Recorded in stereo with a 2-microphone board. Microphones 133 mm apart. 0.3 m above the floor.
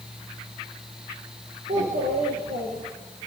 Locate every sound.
1.7 s a child speaking: 80° right, 6.5 m